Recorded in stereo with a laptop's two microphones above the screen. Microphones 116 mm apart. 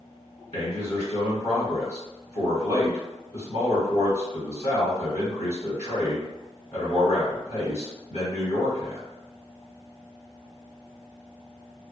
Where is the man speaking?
70° left (ahead or behind), 2.0 m.